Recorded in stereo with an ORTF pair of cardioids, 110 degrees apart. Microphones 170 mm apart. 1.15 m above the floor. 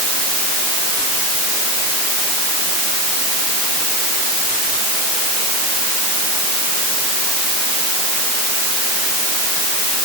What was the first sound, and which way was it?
Only background noise.